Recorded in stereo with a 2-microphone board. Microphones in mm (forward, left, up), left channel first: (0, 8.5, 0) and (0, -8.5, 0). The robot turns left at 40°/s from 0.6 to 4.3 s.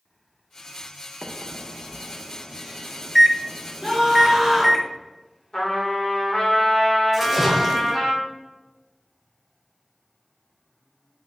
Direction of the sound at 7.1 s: 10° right (ahead or behind).